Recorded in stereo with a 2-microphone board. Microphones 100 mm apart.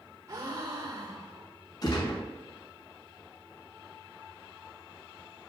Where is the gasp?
40° right (ahead or behind), 2 m.